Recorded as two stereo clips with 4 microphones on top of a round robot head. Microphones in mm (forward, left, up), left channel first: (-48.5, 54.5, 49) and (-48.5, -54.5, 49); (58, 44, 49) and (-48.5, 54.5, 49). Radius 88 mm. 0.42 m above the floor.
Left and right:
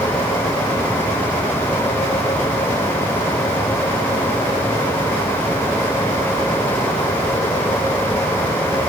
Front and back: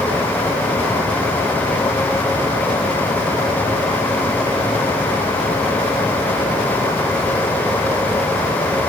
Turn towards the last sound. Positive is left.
No sound to turn to.